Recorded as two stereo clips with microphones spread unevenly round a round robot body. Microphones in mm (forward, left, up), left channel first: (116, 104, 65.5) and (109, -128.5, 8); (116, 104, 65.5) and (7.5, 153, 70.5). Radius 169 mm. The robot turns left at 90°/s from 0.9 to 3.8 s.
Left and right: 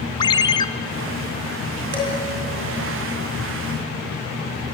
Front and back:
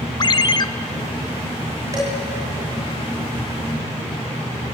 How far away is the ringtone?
About 1.0 m.